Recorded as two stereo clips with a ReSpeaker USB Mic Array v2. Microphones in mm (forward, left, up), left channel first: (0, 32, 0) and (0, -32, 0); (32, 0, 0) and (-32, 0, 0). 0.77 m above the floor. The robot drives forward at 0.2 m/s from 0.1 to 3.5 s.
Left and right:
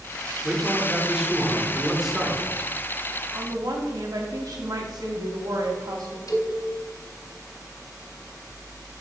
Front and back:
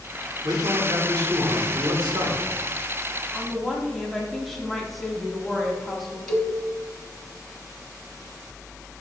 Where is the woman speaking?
85° right, 1.2 m; by 6.2 s 90° right, 1.2 m.